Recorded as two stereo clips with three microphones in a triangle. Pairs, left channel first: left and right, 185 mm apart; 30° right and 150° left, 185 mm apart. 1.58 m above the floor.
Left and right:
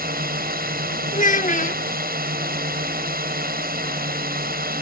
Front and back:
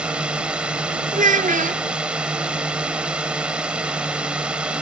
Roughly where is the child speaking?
Behind left.